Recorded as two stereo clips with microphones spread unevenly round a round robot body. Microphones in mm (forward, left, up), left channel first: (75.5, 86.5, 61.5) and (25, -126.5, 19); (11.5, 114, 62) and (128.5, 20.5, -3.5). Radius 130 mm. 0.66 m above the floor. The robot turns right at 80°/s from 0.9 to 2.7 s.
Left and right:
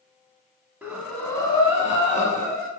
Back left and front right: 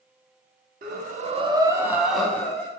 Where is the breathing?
10° right, 0.6 m; by 2.7 s 135° left, 0.6 m.